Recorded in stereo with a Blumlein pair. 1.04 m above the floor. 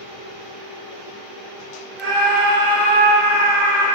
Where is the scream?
15° right, 0.5 m; by 3.9 s 75° right, 1.4 m.